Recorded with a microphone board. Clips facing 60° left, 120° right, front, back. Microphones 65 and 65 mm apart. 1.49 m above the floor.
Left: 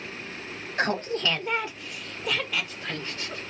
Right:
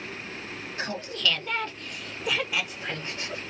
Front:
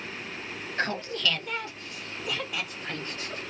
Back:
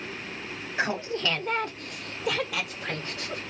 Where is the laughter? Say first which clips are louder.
Left 5 dB, back 2 dB; 100° left, 0.6 m; by 3.4 s 170° left, 1.4 m.